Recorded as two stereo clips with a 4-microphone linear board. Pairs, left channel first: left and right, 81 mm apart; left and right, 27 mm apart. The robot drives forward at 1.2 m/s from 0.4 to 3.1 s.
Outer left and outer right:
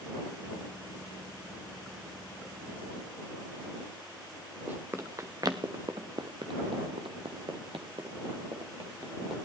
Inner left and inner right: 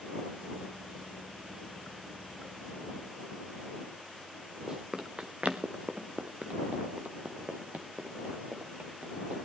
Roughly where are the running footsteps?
Right.